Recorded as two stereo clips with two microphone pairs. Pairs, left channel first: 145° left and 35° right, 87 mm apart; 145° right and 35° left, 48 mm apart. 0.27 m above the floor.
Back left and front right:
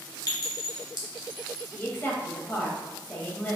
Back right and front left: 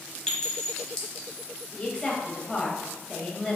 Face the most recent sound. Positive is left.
turn(degrees=155)